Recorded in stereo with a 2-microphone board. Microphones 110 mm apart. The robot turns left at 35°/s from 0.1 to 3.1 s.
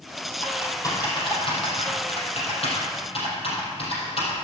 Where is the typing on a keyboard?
20° left (ahead or behind), 4 m; by 4.3 s 55° left (ahead or behind), 4 m.